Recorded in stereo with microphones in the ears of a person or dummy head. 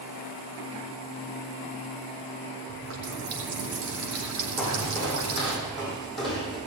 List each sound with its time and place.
2.7 s a running tap: 80° right, 3.5 m
4.6 s footsteps: 5° right (ahead or behind), 5.5 m; by 6.6 s centre (ahead or behind), 4.5 m